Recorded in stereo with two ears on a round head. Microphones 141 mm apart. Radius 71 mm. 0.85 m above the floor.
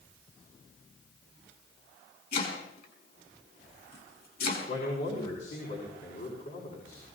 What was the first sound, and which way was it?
Chopping, 65° left (ahead or behind).